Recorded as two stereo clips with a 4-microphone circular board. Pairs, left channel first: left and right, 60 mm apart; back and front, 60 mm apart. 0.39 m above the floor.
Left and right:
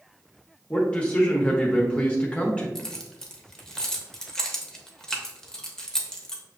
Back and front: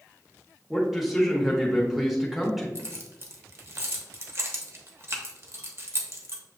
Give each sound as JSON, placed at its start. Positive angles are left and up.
{"t": 0.7, "sound": "a man speaking", "azimuth_deg": 75, "distance_m": 0.8}
{"t": 2.8, "sound": "keys jangling", "azimuth_deg": 15, "distance_m": 0.7}